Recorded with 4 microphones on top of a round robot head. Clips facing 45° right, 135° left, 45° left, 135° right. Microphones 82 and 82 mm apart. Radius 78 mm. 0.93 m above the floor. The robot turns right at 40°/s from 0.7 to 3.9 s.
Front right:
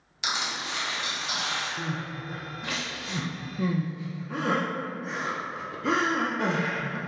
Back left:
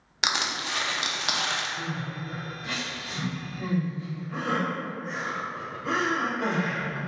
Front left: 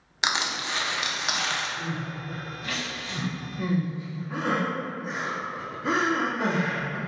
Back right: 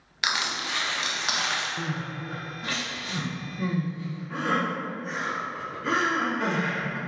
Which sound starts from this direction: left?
Crushing, at 0.2 s.